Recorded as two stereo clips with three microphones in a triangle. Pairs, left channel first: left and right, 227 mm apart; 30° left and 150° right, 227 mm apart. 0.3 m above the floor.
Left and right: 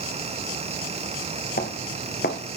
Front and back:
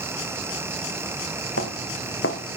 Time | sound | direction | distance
1.6 | footsteps | 45° left | 3.5 m